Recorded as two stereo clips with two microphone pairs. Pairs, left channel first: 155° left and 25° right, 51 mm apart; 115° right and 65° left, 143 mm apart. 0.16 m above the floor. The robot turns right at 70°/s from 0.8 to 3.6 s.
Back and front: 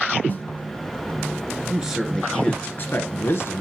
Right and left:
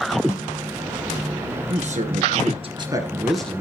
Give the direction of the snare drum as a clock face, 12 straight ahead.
6 o'clock.